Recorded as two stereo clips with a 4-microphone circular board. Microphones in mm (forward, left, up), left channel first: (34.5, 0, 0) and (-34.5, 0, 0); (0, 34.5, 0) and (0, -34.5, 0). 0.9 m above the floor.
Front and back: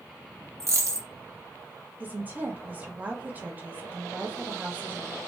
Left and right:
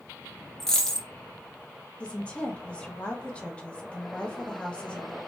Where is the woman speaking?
145° left, 0.7 m.